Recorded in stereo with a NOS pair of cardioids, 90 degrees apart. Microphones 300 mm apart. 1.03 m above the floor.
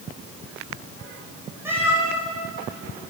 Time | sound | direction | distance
1.6 | a cat meowing | 10° right | 6 m